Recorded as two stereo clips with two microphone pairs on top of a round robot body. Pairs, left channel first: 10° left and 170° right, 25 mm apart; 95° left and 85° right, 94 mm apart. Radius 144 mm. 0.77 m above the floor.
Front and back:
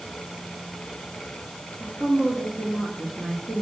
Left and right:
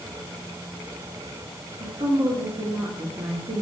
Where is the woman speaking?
130° right, 2 m.